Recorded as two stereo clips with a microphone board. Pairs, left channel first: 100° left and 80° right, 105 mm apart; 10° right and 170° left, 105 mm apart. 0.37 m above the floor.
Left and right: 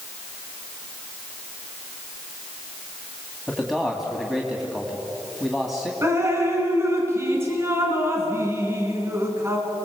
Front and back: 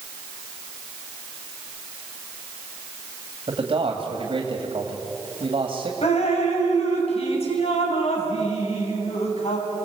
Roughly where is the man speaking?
Behind.